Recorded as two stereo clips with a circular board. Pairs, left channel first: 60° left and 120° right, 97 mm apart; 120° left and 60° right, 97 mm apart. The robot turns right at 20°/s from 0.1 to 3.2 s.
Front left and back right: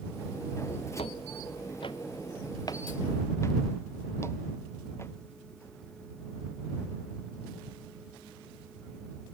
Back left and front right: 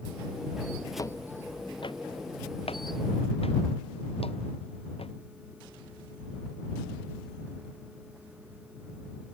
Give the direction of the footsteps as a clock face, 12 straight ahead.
10 o'clock.